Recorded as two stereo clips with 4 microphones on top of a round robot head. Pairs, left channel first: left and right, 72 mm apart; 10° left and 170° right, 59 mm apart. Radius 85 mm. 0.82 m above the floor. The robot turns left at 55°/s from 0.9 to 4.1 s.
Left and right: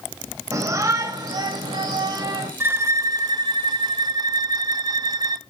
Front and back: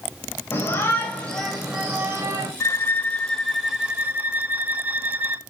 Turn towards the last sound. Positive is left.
turn(degrees=-115)